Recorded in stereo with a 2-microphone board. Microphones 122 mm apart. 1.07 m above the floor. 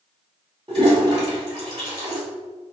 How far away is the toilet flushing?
About 2.0 m.